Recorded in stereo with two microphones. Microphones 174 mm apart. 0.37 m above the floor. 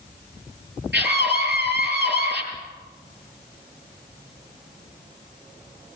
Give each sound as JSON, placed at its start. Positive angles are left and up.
{"t": 0.9, "sound": "a scream", "side_deg": -80, "distance_m": 8.5}